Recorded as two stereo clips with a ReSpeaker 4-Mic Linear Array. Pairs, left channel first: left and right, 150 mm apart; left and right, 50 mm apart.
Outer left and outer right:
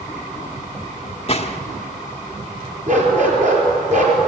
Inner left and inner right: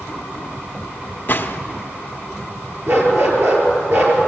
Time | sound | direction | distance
1.3 | a gunshot | 40° left (ahead or behind) | 1.2 m
2.9 | a dog barking | 50° right (ahead or behind) | 4.5 m